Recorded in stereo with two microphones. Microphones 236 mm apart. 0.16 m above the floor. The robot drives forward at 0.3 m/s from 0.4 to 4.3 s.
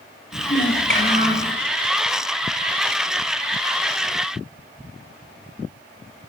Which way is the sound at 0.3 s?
35° left (ahead or behind).